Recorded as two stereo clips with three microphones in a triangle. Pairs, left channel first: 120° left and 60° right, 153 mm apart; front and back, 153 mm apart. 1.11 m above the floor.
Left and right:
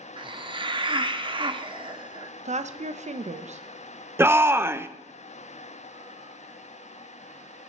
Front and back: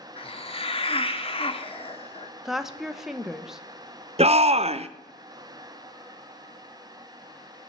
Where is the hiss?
25° right, 0.8 m.